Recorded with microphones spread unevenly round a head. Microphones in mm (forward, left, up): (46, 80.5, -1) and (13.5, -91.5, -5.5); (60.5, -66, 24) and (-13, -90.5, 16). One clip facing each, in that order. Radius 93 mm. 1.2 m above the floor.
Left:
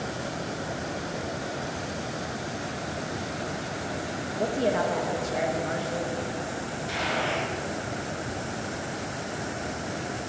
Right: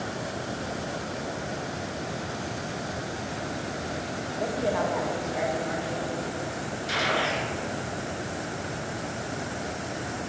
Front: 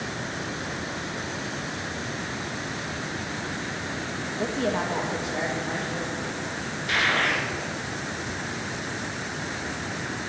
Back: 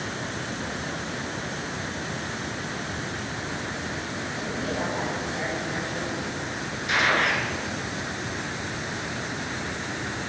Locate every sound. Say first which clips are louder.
4.4 s a woman speaking: left 2 dB, front 4 dB; 20° left, 1.9 m; by 6.2 s 40° left, 2.5 m
6.9 s a gunshot: right 1 dB, back 2 dB; 90° right, 2.5 m